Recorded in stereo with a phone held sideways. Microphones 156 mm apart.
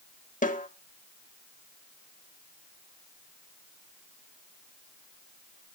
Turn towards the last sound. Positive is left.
turn(degrees=65)  # may be behind; listen again after turning